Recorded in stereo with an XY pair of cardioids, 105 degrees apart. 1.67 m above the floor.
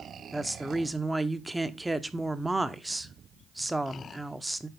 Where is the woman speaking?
10° right, 0.9 m.